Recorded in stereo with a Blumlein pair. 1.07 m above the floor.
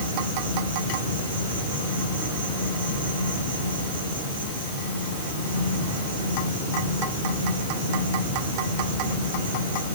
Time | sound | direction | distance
0.0 | an insect | 65° right | 4.5 m